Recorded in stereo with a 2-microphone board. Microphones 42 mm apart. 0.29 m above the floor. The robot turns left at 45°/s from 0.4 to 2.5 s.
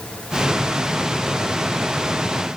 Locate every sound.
Only background noise.